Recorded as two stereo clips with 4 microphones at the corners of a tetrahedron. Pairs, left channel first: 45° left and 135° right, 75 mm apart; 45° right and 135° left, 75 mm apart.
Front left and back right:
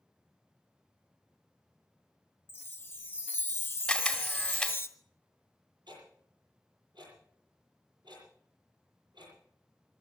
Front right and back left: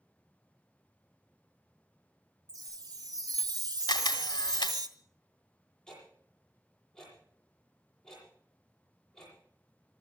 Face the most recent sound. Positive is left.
turn(degrees=-130)